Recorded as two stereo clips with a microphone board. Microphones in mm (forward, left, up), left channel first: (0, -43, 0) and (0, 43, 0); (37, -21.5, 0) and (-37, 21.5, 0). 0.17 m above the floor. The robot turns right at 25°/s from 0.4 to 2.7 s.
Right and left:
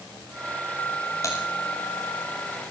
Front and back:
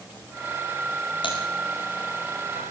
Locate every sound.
1.2 s typing on a keyboard: 40° right, 8.5 m; by 1.4 s 35° right, 8.5 m